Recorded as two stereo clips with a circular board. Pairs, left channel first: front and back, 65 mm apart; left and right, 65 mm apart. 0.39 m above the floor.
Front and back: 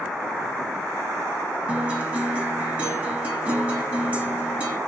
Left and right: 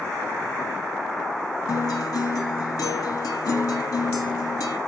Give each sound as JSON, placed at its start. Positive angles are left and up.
{"t": 1.7, "sound": "a guitar", "azimuth_deg": 110, "distance_m": 0.9}